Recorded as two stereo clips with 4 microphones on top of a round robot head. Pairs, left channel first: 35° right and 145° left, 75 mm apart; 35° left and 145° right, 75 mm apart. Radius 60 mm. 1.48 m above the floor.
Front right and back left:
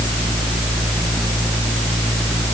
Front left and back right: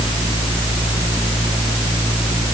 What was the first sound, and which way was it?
Only background noise.